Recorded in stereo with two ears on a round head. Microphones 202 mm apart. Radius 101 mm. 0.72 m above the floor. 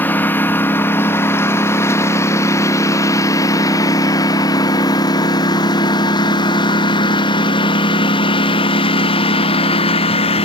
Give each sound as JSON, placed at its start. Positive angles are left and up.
{"t": 0.0, "sound": "a lawn mower", "side_deg": 10}